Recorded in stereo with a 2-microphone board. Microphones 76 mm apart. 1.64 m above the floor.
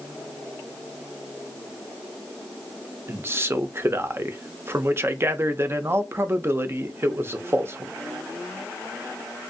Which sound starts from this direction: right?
A man speaking, at 3.1 s.